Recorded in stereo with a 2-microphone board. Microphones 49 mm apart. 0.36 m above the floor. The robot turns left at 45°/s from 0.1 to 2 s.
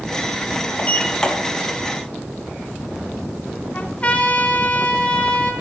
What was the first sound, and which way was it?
A sliding door, 35° left (ahead or behind).